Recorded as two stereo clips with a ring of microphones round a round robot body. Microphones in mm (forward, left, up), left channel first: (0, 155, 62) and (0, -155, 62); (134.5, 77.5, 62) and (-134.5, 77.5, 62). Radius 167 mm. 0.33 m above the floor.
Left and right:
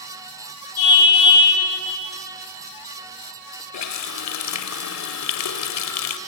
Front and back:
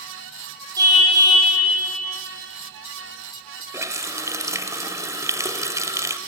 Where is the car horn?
105° left, 9 m.